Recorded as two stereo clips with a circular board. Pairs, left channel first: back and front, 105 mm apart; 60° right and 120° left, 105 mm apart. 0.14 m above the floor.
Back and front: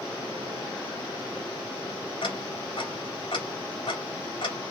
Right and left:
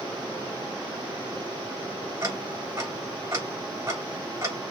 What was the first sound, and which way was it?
Ticking, 175° left.